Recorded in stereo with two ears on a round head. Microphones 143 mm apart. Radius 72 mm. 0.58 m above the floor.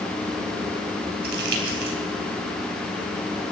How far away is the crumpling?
About 3.5 m.